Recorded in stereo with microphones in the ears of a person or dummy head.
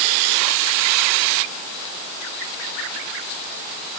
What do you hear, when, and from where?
Only background noise.